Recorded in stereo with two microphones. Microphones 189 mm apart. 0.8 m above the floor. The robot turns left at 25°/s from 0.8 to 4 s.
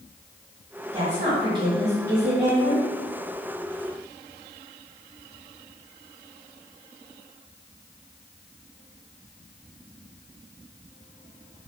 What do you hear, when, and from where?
0.9 s a woman speaking: 135° right, 1.4 m; by 2.9 s 175° left, 1.4 m